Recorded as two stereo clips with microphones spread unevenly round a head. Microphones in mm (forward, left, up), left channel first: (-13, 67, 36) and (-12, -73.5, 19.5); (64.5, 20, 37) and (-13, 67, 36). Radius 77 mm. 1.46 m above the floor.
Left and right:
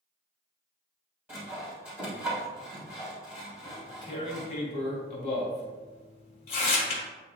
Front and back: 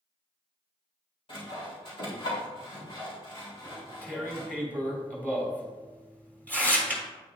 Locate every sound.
1.3 s sawing: 5° right, 3 m
3.6 s tearing paper: 40° left, 2 m